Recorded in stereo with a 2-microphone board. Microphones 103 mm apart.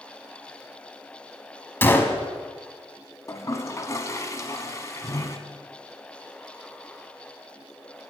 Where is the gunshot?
20° left (ahead or behind), 0.8 m.